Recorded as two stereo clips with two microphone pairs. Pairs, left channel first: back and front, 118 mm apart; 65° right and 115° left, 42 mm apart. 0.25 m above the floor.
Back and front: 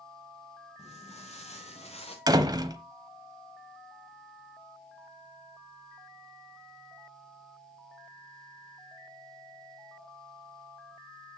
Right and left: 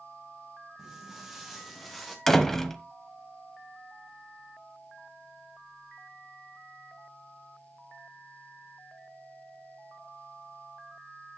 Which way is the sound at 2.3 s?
10° left.